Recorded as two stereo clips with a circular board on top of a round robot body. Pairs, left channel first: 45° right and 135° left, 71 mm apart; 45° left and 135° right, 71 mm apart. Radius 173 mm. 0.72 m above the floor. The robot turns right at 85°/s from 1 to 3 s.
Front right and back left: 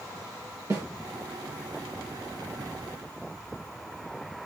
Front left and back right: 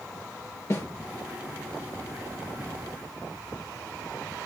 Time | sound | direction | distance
0.7 | a snare drum | 95° left | 2.5 m